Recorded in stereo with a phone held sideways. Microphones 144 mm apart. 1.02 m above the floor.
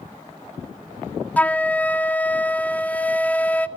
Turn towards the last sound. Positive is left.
turn(degrees=10)  # may be behind; listen again after turning